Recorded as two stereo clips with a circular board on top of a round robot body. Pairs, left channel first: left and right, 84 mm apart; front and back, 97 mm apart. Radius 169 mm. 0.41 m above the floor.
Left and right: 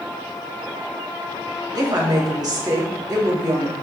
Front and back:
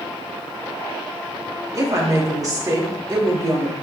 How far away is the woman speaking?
About 2.5 m.